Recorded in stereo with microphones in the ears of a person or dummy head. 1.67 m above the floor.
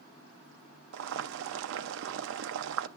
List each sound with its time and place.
0.9 s boiling: 80° right, 0.6 m